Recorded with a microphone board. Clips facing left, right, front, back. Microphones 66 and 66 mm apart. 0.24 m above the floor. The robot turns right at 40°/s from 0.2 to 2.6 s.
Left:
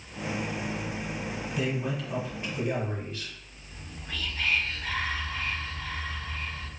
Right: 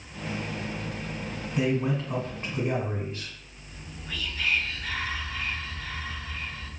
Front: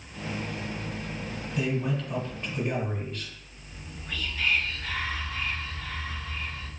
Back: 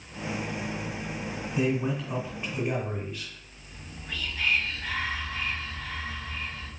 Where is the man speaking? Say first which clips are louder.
Right 6 dB, back 2 dB; 150° right, 1.9 m; by 3.3 s 105° right, 1.9 m.